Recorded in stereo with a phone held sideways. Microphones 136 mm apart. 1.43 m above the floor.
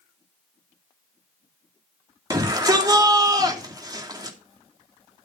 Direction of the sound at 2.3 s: 30° right (ahead or behind).